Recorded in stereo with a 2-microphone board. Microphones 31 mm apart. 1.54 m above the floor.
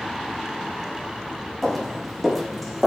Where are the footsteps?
5° left (ahead or behind), 5 m; by 2.9 s 5° right (ahead or behind), 5.5 m.